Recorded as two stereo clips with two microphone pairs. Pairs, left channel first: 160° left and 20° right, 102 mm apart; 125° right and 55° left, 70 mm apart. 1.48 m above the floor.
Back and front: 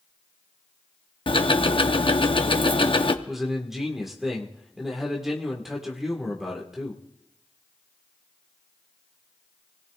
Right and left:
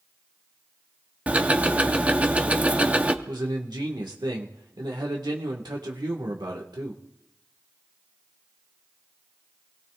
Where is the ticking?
130° left, 0.8 m.